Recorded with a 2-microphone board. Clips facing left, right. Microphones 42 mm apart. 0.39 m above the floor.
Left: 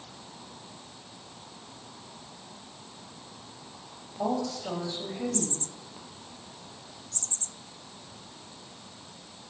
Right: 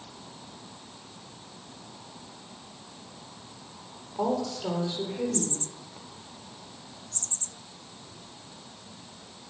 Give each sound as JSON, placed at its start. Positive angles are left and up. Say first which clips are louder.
{"t": 4.2, "sound": "a woman speaking", "louder": "right 2 dB", "side_deg": -75, "distance_m": 9.5}